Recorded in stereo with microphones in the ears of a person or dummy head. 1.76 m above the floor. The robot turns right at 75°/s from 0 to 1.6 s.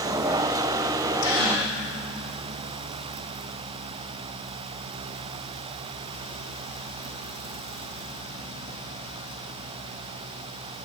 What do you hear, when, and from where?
1.2 s a gasp: 65° left (ahead or behind), 2 m; by 1.7 s 35° left (ahead or behind), 2 m